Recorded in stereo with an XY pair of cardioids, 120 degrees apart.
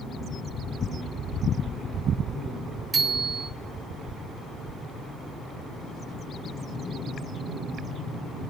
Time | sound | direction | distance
2.9 | a bicycle bell | 20° right | 4 m